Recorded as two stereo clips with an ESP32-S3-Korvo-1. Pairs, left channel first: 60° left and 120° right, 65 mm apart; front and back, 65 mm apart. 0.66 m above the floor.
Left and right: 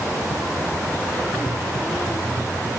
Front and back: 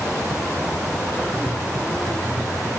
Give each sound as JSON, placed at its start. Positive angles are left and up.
{"t": 1.3, "sound": "tapping", "azimuth_deg": 85, "distance_m": 5.5}